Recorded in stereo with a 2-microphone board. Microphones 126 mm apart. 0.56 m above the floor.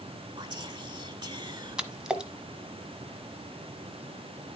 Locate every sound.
0.4 s whispering: 35° right (ahead or behind), 1.7 m
1.8 s a splash: 5° right (ahead or behind), 1.1 m